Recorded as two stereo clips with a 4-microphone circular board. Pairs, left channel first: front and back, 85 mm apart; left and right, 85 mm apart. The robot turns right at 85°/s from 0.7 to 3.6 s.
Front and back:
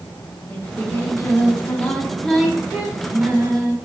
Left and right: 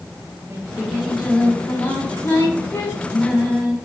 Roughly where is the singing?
Ahead right.